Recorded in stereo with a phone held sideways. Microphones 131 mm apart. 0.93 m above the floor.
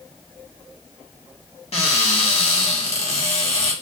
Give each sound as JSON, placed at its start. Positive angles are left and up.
{"t": 1.7, "sound": "a cupboard door", "side_deg": 55, "distance_m": 0.9}